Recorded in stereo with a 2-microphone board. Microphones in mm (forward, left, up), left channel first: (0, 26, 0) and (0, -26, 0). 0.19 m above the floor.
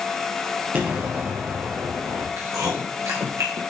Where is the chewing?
75° right (ahead or behind), 2.5 m.